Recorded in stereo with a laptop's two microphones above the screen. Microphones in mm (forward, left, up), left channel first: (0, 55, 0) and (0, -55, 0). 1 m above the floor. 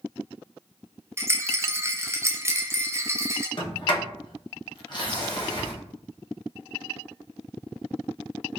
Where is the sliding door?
45° left (ahead or behind), 0.9 m.